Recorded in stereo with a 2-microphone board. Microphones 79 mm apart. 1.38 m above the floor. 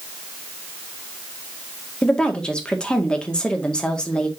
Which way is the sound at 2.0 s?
10° left (ahead or behind).